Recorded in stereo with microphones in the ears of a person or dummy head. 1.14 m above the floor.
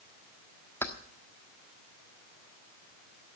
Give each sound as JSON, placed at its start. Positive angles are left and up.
{"t": 0.8, "sound": "keys jangling", "side_deg": 10, "distance_m": 1.3}